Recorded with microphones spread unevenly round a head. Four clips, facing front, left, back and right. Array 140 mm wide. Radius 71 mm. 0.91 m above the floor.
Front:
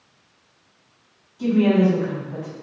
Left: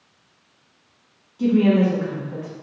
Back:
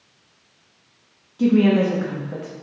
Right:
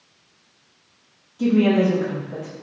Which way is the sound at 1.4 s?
175° right.